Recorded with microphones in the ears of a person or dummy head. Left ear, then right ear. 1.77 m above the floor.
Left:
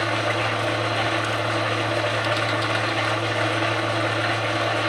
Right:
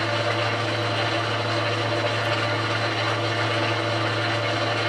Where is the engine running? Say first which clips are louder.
Left 1 dB; 20° left (ahead or behind), 2.5 m.